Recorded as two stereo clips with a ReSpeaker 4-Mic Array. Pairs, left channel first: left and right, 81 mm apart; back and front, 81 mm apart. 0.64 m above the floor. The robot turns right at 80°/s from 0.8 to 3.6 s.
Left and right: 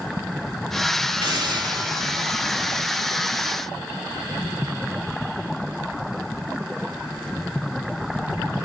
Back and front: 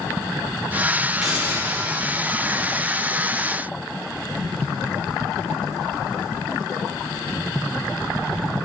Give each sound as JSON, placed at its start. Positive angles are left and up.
{"t": 1.2, "sound": "a hiss", "azimuth_deg": -85, "distance_m": 4.5}